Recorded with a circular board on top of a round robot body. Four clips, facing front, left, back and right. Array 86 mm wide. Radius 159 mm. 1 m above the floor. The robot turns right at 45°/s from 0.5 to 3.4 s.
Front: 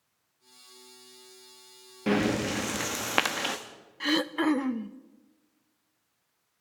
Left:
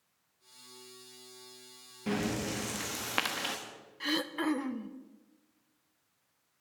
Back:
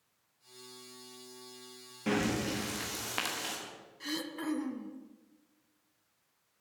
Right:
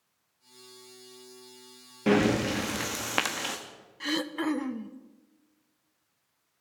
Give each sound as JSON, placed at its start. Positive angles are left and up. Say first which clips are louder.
{"t": 2.1, "sound": "breathing", "louder": "right 10 dB, front 5 dB", "azimuth_deg": -70, "distance_m": 0.7}
{"t": 4.0, "sound": "throat clearing", "louder": "right 2 dB, front 11 dB", "azimuth_deg": -5, "distance_m": 0.6}